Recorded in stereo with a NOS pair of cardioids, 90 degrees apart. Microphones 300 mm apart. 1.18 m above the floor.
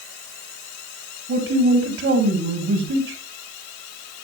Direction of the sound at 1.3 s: 50° right.